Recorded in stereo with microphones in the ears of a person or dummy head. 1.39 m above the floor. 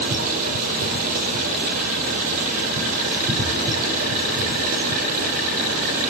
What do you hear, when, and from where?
0.0 s running water: 50° right (ahead or behind), 5 m